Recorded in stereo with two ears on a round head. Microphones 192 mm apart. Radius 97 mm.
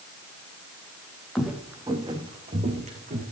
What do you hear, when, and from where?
1.4 s footsteps: centre (ahead or behind), 2 m; by 3.2 s 40° right (ahead or behind), 4 m